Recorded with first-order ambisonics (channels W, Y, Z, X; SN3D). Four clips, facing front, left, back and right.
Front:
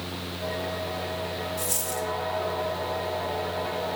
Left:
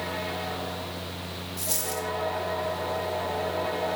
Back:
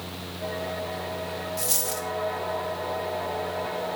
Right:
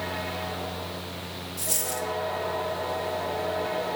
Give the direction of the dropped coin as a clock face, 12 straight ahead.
7 o'clock.